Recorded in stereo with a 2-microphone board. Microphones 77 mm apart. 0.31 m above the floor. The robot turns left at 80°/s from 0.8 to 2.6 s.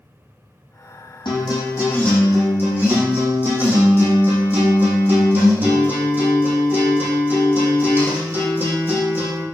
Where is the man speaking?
I don't hear a man speaking.